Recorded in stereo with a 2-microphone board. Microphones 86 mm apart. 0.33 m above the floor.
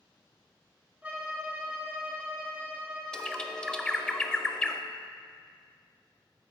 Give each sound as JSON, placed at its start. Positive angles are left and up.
{"t": 1.0, "sound": "a violin", "side_deg": -20, "distance_m": 1.2}
{"t": 3.1, "sound": "a bird", "side_deg": 10, "distance_m": 0.5}